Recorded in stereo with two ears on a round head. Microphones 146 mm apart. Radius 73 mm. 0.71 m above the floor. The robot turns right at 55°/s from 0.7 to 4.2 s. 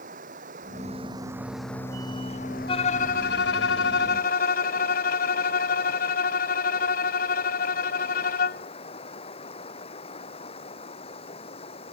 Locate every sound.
0.0 s running water: 50° right; by 11.9 s 140° left
2.7 s a violin: 35° left; by 8.7 s 115° left